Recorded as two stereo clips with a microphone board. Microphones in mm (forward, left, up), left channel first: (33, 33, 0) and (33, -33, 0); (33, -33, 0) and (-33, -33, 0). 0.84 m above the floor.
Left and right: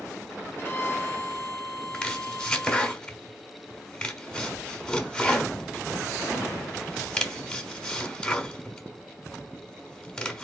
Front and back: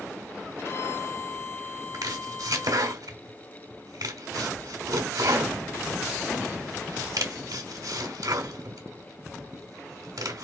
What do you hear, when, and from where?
0.6 s a violin: 30° left, 2 m
1.9 s chopping: 170° left, 1.1 m